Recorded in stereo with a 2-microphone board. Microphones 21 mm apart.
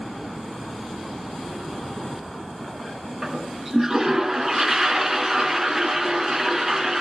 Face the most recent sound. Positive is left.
turn(degrees=-20)  # may be behind; listen again after turning